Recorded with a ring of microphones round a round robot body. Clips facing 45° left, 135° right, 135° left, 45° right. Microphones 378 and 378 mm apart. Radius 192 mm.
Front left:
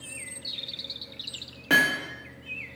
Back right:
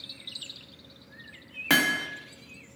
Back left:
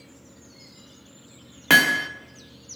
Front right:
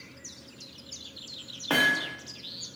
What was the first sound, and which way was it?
Hammering, 165° left.